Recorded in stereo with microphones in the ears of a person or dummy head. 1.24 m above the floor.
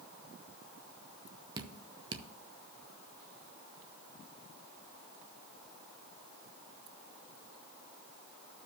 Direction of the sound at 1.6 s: 20° right (ahead or behind).